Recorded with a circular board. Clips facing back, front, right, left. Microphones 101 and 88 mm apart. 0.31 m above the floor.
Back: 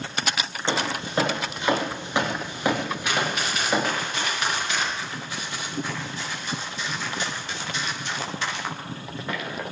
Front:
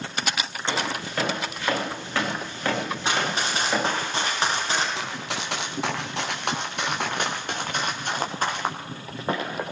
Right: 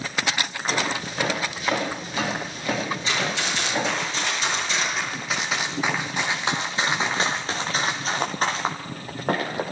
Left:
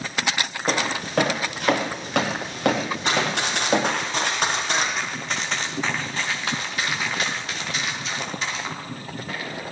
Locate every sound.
0.7 s footsteps: 115° left, 8 m; by 3.9 s 100° left, 5 m
3.0 s running footsteps: 60° left, 9 m; by 4.8 s 55° left, 7.5 m
5.0 s running footsteps: straight ahead, 3 m; by 9.6 s 55° right, 4 m